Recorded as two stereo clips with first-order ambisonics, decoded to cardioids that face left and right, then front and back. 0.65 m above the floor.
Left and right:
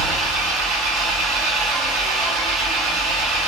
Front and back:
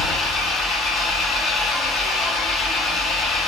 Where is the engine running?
80° right, 1.3 m.